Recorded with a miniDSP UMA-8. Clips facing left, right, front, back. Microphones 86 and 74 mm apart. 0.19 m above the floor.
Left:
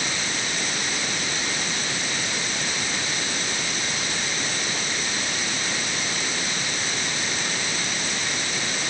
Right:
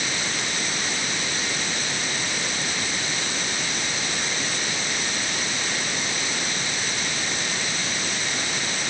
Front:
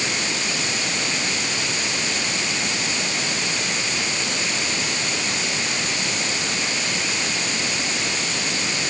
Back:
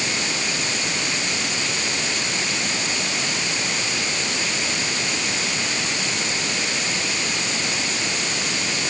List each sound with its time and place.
Only background noise.